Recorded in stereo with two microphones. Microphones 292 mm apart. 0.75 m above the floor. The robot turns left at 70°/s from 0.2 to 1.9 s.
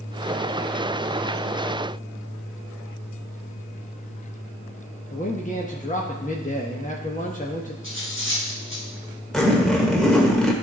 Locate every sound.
5.1 s a man speaking: 25° left (ahead or behind), 0.9 m
7.8 s cutlery clinking: 45° left (ahead or behind), 4 m
9.3 s a zipper: centre (ahead or behind), 1.5 m